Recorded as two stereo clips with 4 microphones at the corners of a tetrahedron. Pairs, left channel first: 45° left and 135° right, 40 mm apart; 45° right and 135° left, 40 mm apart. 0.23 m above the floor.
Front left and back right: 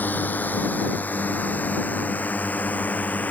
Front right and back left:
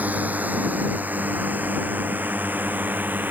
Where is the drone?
85° left; by 3.3 s 95° left.